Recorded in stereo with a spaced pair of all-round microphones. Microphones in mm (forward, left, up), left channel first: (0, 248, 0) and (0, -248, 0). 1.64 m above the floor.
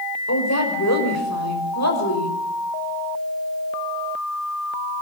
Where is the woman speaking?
30° left (ahead or behind), 6 m.